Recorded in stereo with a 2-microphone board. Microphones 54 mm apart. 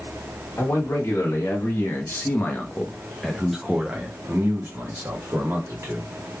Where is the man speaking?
65° left (ahead or behind), 1.6 m; by 6.1 s 65° right (ahead or behind), 1.6 m.